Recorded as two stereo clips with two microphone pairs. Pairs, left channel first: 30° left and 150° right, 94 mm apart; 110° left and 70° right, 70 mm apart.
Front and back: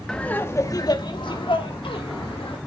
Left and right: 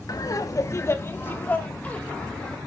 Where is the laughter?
110° left, 1.1 m; by 2.6 s 35° left, 2.5 m.